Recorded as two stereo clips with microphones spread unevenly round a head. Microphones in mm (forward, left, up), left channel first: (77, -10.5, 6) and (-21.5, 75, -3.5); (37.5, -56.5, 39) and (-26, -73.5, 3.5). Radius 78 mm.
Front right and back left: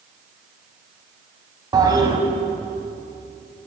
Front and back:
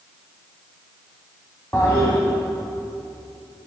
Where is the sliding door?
I don't hear a sliding door.